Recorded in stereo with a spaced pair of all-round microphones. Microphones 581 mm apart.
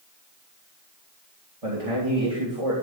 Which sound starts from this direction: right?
A man speaking, at 1.6 s.